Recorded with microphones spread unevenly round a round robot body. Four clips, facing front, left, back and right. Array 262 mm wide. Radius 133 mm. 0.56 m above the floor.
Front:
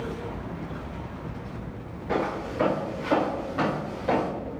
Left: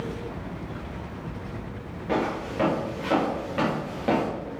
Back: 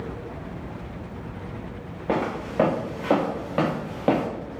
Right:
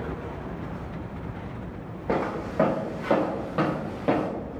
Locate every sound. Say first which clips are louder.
2.1 s footsteps: even, back 2 dB; 155° right, 4 m; by 4.3 s straight behind, 2.5 m